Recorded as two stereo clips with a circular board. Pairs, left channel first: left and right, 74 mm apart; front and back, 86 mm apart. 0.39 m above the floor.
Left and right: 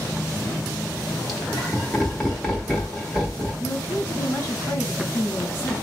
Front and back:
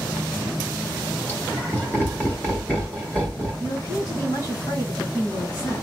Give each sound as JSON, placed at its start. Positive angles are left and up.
{"t": 1.3, "sound": "laughter", "azimuth_deg": 10, "distance_m": 1.5}
{"t": 3.6, "sound": "a woman speaking", "azimuth_deg": 40, "distance_m": 2.0}